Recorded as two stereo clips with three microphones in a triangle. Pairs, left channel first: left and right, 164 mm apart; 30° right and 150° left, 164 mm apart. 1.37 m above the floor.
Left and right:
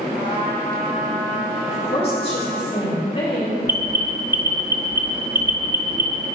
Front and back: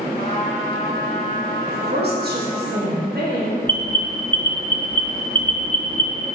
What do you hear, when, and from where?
0.1 s a trumpet: 85° right, 2.0 m
1.7 s a woman speaking: 140° left, 2.5 m
3.7 s an alarm: 110° right, 0.7 m